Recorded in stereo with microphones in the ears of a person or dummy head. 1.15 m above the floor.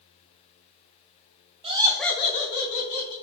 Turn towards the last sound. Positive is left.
turn(degrees=80)